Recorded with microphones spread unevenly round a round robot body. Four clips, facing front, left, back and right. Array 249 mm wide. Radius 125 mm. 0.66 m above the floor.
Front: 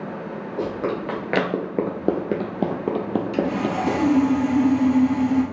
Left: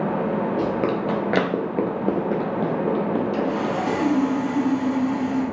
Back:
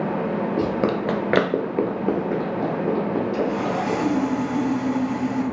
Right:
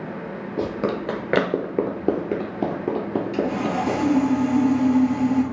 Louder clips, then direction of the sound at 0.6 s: Left 3 dB, back 1 dB; 170° right.